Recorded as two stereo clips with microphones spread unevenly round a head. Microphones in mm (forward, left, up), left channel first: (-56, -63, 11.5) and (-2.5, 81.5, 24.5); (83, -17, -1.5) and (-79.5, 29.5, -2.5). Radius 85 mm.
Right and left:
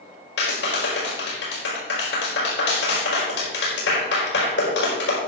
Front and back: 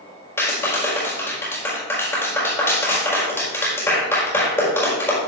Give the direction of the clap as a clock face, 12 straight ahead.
3 o'clock.